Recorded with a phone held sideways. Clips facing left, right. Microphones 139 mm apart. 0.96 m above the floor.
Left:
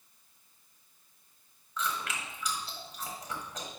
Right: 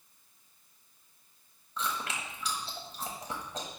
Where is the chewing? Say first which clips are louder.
Even; 30° right (ahead or behind), 1.2 m.